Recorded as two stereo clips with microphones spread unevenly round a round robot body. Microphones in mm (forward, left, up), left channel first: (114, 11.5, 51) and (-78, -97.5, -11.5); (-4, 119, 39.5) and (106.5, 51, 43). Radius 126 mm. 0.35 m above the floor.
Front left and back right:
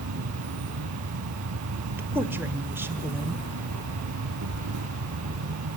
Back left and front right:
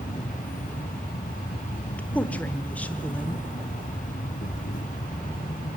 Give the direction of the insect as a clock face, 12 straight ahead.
6 o'clock.